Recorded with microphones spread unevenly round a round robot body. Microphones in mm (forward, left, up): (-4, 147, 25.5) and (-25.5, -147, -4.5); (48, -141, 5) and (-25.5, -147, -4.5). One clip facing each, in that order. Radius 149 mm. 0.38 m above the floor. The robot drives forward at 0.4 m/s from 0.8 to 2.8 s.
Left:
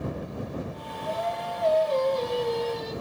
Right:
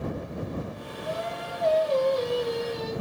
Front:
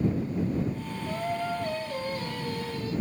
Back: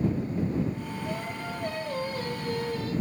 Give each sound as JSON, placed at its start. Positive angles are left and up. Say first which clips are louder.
{"t": 1.1, "sound": "singing", "louder": "left 3 dB, front 7 dB", "azimuth_deg": -150, "distance_m": 1.2}